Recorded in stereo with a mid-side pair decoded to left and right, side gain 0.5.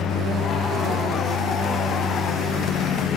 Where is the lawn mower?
65° left.